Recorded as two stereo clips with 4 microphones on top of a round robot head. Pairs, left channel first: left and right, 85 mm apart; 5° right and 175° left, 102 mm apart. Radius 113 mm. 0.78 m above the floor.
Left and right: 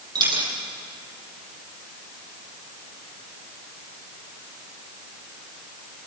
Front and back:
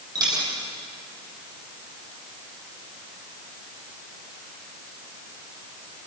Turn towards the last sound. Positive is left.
turn(degrees=-125)